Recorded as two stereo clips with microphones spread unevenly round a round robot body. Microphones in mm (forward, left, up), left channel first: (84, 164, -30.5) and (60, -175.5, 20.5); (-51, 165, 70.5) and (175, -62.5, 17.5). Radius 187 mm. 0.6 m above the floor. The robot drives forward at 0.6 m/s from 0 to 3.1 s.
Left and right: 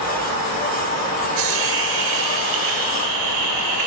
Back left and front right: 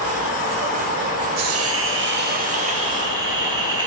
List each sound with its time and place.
1.4 s a hiss: 90° right, 1.5 m; by 3.9 s 125° right, 1.8 m